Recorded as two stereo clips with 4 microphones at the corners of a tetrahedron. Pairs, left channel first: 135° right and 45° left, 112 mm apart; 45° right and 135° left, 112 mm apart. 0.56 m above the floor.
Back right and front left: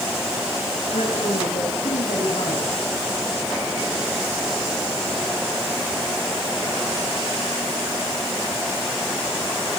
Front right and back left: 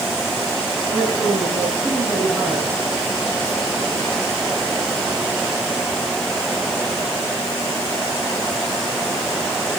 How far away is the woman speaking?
About 4 m.